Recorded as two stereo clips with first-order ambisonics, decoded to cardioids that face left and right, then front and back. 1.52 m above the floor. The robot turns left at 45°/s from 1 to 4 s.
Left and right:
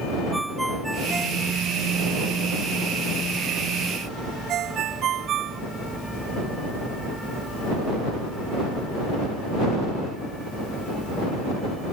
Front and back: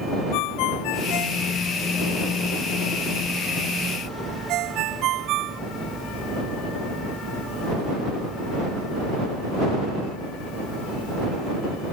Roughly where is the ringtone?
Ahead.